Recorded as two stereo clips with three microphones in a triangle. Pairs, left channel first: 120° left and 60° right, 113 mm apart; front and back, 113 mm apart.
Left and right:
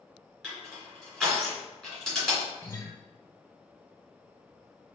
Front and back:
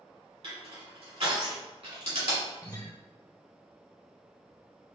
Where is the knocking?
I don't hear knocking.